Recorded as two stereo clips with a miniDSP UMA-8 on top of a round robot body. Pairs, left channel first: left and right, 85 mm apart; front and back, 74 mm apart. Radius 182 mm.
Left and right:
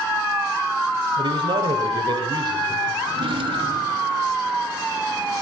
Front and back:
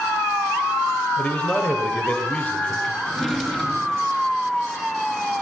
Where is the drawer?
85° right, 4.5 m.